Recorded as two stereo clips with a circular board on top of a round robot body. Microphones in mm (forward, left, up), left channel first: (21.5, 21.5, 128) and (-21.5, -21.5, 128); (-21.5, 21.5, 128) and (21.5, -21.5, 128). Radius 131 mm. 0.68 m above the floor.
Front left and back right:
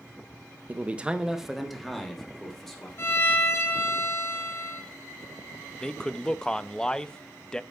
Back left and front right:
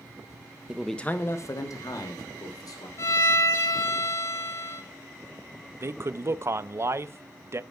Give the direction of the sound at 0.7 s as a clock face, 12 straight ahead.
3 o'clock.